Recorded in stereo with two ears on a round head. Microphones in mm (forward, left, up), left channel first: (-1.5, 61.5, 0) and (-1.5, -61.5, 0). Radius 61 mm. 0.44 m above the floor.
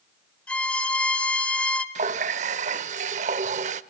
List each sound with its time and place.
0.5 s a violin: 10° left (ahead or behind), 1.1 m
1.9 s a running tap: 55° right (ahead or behind), 0.7 m